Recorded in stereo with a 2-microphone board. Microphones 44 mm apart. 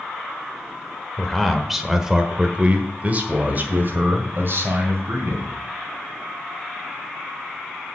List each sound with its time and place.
1.2 s a man speaking: 10° left (ahead or behind), 1.4 m; by 5.5 s 60° right (ahead or behind), 2.5 m